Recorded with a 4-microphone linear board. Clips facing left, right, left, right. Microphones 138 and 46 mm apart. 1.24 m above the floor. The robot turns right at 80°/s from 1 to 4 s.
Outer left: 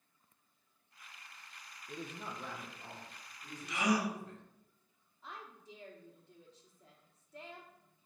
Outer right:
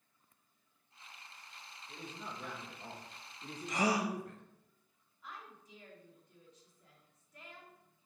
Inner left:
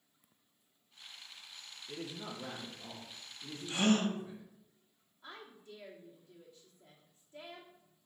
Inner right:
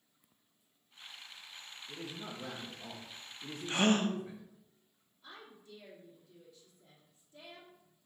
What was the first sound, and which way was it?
A man speaking, 120° left.